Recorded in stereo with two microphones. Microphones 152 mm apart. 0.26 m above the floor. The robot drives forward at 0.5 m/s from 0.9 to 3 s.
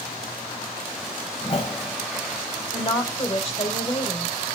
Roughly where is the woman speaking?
Left.